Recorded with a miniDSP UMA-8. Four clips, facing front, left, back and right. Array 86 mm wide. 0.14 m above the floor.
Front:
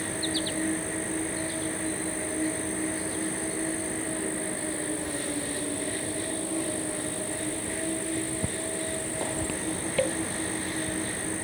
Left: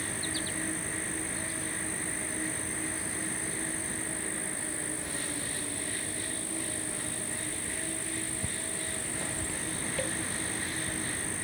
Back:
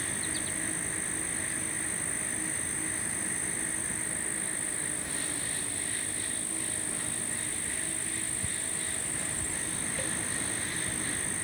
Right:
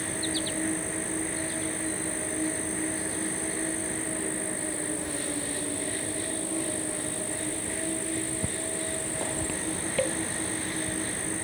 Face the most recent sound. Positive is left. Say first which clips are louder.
# right 5 dB, front 8 dB
turn(degrees=-35)